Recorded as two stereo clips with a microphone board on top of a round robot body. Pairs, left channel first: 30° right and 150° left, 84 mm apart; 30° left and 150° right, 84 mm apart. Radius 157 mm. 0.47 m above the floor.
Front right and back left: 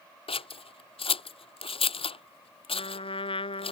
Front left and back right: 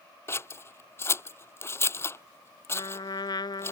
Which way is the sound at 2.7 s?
10° right.